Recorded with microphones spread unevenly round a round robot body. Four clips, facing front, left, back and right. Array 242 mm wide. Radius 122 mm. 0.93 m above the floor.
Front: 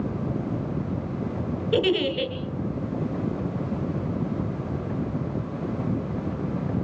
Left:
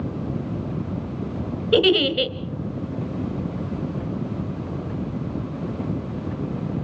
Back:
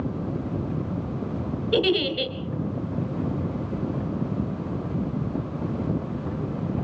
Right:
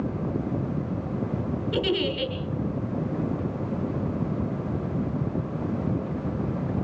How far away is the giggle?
About 2 m.